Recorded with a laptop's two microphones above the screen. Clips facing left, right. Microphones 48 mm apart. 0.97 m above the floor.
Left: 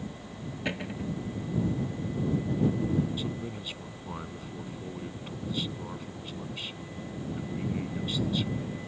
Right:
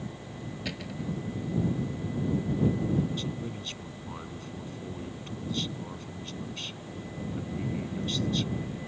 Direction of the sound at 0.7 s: 30° left (ahead or behind).